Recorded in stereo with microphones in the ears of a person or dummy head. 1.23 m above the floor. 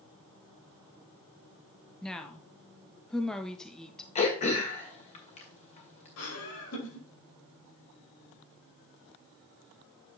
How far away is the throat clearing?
About 1.8 m.